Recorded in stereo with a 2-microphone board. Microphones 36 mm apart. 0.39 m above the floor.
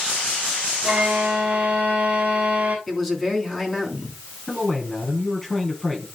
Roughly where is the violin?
Right.